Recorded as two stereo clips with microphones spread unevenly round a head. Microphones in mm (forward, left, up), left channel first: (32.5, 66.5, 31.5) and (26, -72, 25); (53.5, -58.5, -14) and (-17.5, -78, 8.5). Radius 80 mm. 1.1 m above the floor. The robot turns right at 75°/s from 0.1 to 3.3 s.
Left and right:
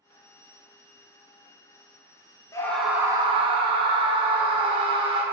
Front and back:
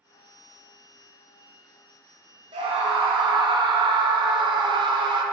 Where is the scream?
155° left, 0.9 m; by 5.2 s 145° right, 0.9 m.